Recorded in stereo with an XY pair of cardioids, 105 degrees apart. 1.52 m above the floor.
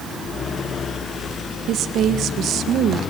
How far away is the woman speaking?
About 1.8 m.